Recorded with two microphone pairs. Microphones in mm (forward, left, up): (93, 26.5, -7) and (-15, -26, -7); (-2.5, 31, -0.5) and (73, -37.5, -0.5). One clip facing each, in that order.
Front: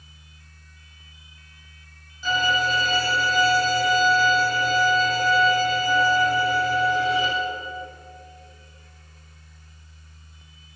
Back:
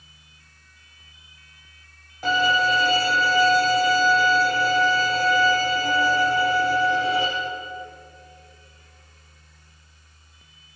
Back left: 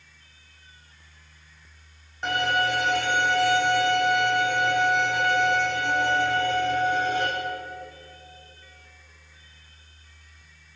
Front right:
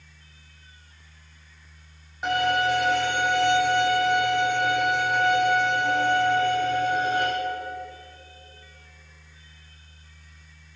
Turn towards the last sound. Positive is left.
turn(degrees=-125)